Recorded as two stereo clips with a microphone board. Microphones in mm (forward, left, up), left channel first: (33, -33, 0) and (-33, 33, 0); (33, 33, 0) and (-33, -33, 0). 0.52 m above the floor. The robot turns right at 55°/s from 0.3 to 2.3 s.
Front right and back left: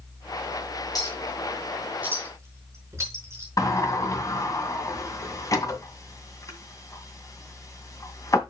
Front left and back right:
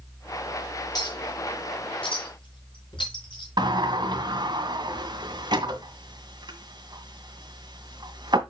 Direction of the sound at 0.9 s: Straight ahead.